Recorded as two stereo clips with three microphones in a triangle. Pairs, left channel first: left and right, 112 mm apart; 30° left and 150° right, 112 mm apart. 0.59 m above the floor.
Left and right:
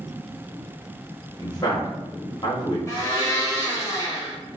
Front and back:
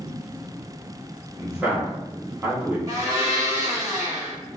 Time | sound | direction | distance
1.4 | a man speaking | 135° left | 0.8 m
2.9 | a blender | 155° left | 0.8 m